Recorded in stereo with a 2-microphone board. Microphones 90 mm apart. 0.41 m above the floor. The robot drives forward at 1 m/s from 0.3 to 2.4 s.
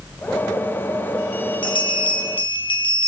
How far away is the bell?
About 4 m.